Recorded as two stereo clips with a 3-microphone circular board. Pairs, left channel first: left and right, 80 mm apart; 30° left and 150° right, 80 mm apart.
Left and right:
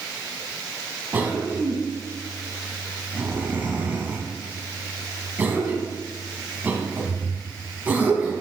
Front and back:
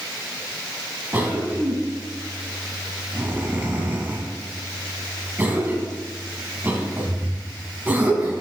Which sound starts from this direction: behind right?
A cough, at 1.1 s.